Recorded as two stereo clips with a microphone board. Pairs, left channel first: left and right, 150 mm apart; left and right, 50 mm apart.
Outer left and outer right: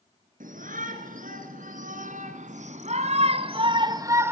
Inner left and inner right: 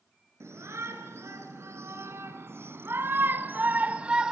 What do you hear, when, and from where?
0.4 s a shout: 65° right (ahead or behind), 4 m; by 4.3 s 15° right (ahead or behind), 1.6 m